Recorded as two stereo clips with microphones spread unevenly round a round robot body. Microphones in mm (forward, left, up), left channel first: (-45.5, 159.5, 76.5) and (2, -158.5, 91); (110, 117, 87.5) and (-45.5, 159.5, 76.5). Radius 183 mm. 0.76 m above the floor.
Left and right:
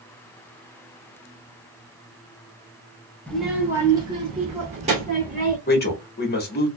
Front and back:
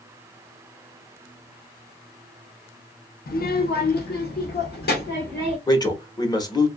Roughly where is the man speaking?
Ahead left.